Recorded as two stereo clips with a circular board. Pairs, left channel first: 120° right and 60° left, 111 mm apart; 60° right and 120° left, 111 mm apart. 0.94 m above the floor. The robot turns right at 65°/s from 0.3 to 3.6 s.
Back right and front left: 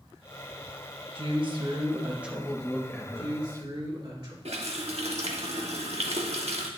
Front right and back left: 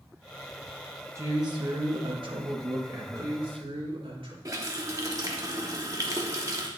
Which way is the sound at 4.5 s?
65° left.